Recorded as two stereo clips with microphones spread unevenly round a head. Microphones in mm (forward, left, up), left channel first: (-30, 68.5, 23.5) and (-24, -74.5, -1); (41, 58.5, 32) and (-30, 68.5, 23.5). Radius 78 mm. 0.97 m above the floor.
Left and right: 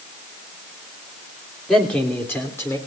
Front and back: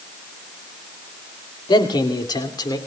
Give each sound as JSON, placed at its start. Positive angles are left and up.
{"t": 1.7, "sound": "a man speaking", "azimuth_deg": 5, "distance_m": 3.0}